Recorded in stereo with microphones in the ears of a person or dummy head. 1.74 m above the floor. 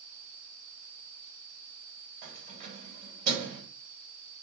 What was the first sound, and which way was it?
Keys jangling, 45° right (ahead or behind).